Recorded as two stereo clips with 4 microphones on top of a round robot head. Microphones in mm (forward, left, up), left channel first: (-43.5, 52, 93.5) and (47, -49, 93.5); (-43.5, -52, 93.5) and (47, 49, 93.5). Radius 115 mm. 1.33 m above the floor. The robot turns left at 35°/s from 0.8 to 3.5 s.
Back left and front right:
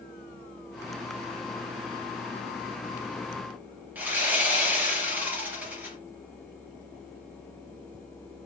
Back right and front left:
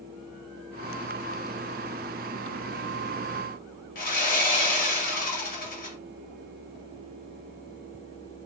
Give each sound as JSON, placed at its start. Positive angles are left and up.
{"t": 4.0, "sound": "sawing", "azimuth_deg": -125, "distance_m": 1.5}